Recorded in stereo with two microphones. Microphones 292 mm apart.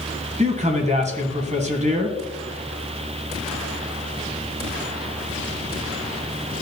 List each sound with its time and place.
0.4 s a man speaking: 25° right (ahead or behind), 1.7 m